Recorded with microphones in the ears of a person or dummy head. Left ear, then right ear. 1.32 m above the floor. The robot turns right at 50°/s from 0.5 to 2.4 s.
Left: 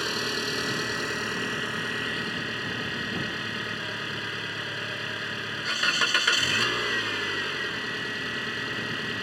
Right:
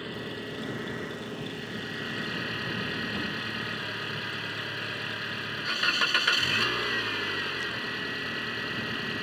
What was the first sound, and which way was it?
An engine running, 80° left.